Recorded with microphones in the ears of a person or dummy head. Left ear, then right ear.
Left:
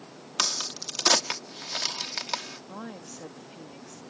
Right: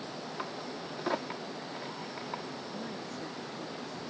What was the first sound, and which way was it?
A crack, 70° left (ahead or behind).